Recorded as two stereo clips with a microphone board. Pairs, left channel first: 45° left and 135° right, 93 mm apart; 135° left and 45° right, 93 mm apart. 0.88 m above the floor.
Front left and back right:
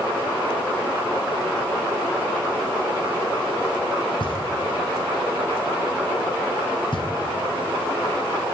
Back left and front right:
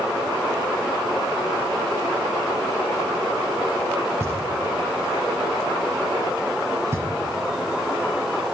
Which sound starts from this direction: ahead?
Knocking, at 4.2 s.